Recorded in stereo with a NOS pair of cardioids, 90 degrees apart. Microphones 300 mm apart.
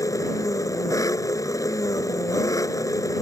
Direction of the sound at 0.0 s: 10° left.